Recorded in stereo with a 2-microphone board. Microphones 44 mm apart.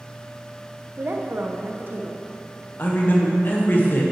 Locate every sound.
1.0 s a woman speaking: 50° right (ahead or behind), 0.7 m
2.8 s a man speaking: 45° left (ahead or behind), 1.3 m